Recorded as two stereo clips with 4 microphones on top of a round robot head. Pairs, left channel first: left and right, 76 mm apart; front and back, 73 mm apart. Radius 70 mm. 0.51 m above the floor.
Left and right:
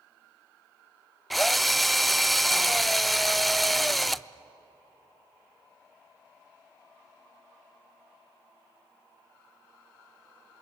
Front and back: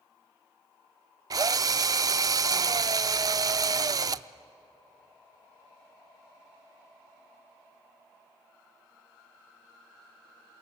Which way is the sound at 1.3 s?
Straight behind.